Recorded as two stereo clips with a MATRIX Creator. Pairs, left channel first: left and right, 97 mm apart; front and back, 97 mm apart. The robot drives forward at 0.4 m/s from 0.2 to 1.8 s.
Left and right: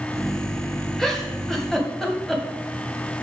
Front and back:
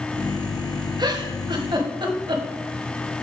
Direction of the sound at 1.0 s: 175° left.